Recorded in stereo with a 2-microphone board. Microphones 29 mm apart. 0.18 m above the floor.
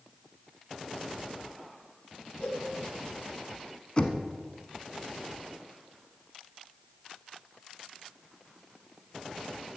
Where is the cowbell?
50° left (ahead or behind), 5.5 m.